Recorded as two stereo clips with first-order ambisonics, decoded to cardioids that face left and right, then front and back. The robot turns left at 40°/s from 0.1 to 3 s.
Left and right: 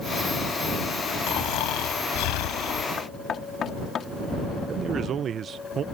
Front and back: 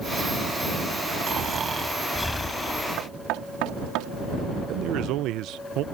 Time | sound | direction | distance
1.3 | snoring | 125° left | ?
3.0 | knocking | 155° left | ?
4.7 | a man speaking | 150° right | ?